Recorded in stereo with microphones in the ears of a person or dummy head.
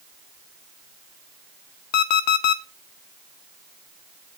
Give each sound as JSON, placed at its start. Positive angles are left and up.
{"t": 1.9, "sound": "an alarm clock", "side_deg": 50, "distance_m": 0.6}